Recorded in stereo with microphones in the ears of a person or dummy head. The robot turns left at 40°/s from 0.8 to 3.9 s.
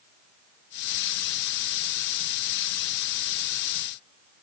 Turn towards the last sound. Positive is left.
No sound to turn to.